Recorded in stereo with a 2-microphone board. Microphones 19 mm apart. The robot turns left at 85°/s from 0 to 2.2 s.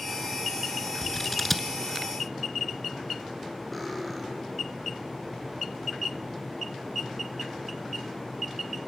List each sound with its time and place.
1.0 s scissors: 25° left (ahead or behind), 1.0 m; by 1.7 s 5° left (ahead or behind), 1.0 m
3.7 s cutlery clinking: 5° left (ahead or behind), 3 m